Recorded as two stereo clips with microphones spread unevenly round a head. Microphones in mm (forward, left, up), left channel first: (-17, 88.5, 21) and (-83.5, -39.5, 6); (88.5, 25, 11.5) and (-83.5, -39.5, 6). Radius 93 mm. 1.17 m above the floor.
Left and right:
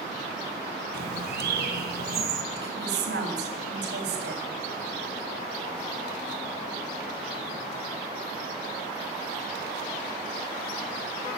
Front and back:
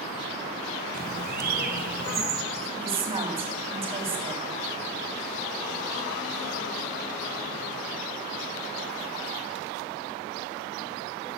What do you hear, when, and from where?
0.9 s a bird: 120° right, 3.5 m
2.5 s a woman speaking: 100° right, 7 m